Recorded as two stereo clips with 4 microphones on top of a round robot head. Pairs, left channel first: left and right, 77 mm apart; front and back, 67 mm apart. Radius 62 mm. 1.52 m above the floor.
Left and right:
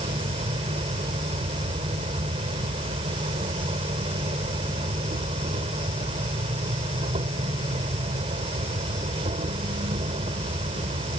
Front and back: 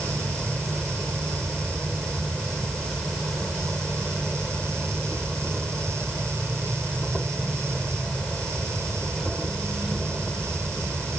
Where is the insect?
85° right.